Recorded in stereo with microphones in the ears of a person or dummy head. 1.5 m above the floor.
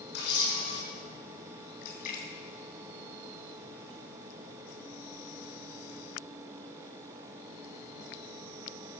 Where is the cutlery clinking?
I don't hear cutlery clinking.